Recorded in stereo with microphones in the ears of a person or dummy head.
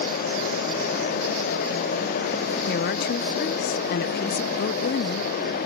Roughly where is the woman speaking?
Left.